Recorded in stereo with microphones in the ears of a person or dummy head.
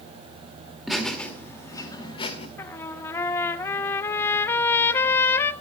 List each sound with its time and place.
0.9 s laughter: centre (ahead or behind), 2 m; by 2.5 s 35° left (ahead or behind), 2.5 m
2.6 s a trumpet: 15° left (ahead or behind), 0.7 m